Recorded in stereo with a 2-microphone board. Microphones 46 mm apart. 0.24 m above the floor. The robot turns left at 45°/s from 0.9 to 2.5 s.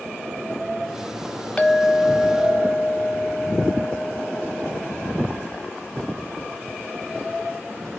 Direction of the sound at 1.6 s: 50° left.